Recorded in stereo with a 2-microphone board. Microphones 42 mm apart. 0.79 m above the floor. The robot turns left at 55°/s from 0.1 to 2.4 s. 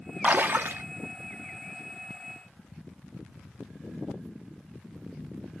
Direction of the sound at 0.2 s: 40° right.